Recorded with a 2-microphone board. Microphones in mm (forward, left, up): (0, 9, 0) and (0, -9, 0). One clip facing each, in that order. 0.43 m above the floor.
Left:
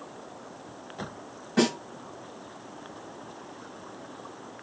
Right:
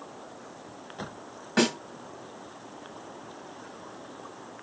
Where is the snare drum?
45° right (ahead or behind), 1.1 m.